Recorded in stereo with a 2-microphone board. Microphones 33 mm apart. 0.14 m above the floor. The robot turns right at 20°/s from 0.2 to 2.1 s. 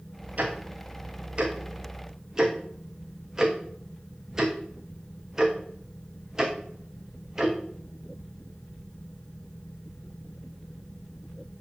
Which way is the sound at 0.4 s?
50° right (ahead or behind).